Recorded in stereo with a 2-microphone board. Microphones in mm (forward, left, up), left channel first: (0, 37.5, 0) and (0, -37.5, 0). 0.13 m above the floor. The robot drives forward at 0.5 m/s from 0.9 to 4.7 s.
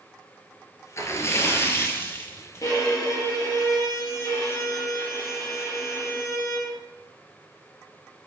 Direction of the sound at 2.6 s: 50° left (ahead or behind).